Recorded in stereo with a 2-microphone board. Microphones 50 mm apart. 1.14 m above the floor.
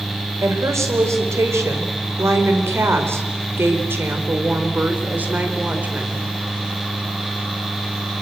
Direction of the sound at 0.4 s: 75° right (ahead or behind).